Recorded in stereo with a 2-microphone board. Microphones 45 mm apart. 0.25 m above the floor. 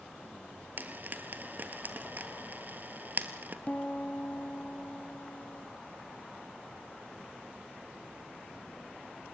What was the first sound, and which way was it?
Frying, 45° right (ahead or behind).